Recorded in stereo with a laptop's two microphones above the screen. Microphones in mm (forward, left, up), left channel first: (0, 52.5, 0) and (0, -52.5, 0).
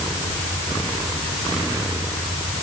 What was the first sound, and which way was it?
Only background noise.